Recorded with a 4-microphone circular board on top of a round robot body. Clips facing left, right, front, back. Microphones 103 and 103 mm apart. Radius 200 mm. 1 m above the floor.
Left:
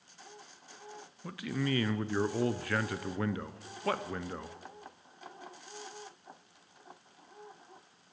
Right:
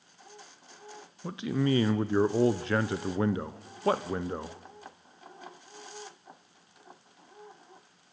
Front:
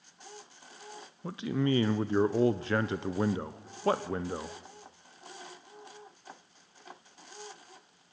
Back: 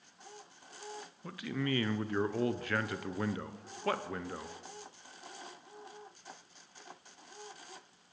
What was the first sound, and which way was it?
A man speaking, 45° right.